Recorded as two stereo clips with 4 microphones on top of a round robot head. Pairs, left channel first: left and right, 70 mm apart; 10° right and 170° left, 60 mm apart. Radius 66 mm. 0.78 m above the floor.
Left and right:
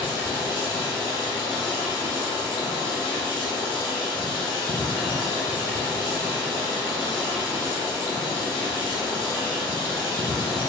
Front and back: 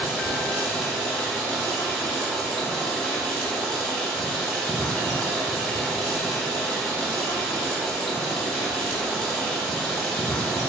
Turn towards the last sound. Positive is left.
turn(degrees=65)